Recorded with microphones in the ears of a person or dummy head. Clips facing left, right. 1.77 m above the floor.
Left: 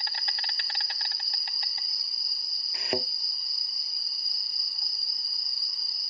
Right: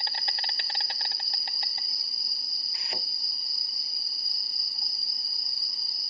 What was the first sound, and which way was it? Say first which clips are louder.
An insect: right 3 dB; 25° right (ahead or behind).